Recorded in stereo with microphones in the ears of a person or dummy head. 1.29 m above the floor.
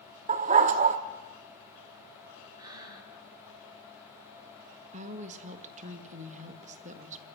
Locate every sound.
0.3 s a dog barking: 45° right (ahead or behind), 1.0 m
2.6 s breathing: 20° right (ahead or behind), 4 m
4.9 s a woman speaking: 40° right (ahead or behind), 1.8 m